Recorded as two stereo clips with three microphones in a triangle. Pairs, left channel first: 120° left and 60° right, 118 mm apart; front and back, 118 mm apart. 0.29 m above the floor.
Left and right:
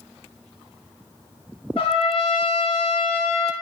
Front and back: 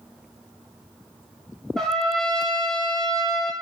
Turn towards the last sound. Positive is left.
turn(degrees=85)